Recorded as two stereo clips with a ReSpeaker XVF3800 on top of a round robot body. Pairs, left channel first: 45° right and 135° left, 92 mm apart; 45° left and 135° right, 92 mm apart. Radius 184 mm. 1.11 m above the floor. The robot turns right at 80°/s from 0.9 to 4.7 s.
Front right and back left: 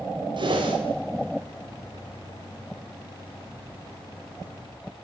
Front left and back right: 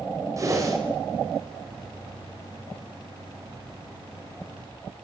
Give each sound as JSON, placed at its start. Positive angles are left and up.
{"t": 0.4, "sound": "a whoosh", "azimuth_deg": 170, "distance_m": 4.0}